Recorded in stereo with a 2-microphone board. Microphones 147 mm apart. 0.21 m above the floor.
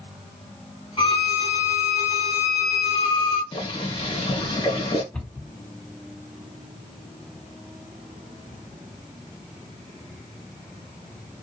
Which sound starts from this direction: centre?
A cupboard door, at 5.1 s.